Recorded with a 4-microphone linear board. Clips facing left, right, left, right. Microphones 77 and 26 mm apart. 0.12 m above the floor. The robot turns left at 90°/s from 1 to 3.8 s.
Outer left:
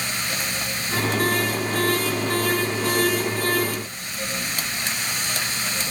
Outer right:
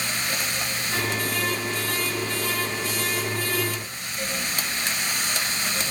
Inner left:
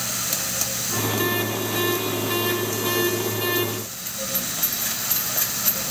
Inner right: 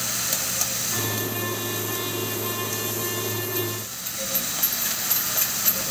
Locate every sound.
Only background noise.